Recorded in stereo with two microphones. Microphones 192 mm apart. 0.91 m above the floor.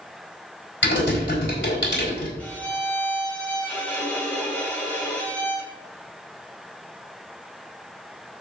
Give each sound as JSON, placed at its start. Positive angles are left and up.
{"t": 0.8, "sound": "typing on a keyboard", "side_deg": 80, "distance_m": 4.5}
{"t": 2.4, "sound": "a violin", "side_deg": 10, "distance_m": 3.0}